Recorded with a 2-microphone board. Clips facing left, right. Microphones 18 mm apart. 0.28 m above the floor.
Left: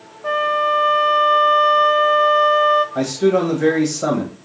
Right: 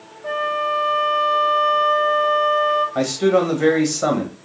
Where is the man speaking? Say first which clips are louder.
Even; 25° right (ahead or behind), 1.1 m.